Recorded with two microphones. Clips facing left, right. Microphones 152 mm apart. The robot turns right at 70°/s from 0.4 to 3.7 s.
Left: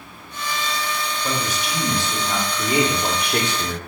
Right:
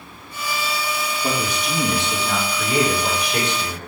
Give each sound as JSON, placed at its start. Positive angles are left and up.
{"t": 1.2, "sound": "a man speaking", "azimuth_deg": -75, "distance_m": 3.0}